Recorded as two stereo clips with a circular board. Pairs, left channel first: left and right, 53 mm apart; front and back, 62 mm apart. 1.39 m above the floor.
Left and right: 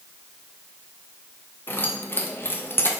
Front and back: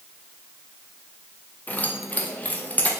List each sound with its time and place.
1.7 s keys jangling: 55° left, 0.6 m